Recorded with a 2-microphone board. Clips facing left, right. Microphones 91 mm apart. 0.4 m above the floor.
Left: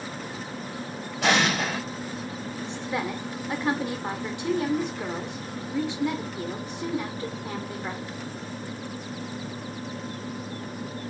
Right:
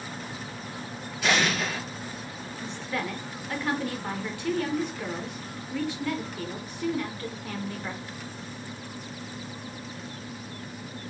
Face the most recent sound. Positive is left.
turn(degrees=20)  # may be behind; listen again after turning